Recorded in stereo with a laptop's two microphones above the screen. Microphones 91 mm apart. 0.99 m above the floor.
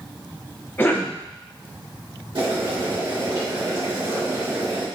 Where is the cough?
20° left (ahead or behind), 0.6 m.